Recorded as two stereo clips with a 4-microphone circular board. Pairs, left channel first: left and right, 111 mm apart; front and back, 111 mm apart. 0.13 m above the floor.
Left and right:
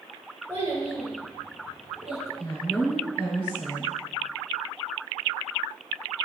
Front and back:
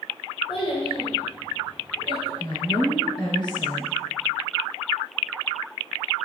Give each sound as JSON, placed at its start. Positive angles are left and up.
{"t": 0.5, "sound": "a child speaking", "azimuth_deg": -25, "distance_m": 1.8}
{"t": 2.4, "sound": "a woman speaking", "azimuth_deg": 10, "distance_m": 1.4}